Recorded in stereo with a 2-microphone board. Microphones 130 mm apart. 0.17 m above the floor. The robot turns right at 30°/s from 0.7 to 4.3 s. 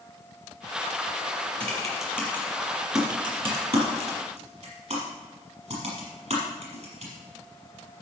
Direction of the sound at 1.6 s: 10° left (ahead or behind).